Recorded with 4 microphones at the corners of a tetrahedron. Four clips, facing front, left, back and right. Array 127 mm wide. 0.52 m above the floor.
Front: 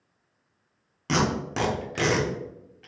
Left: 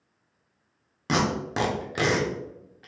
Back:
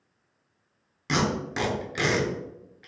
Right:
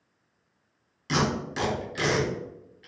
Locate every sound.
1.1 s tape being pulled: 70° left, 0.9 m